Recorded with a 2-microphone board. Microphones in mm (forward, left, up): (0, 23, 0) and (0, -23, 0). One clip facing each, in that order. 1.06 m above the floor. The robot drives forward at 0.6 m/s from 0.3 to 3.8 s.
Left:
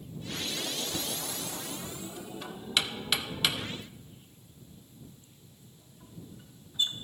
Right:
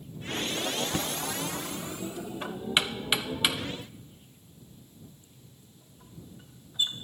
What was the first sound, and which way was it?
Knocking, 35° right (ahead or behind).